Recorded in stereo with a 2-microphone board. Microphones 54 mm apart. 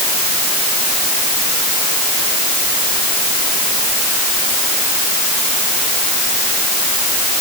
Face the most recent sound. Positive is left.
No sound to turn to.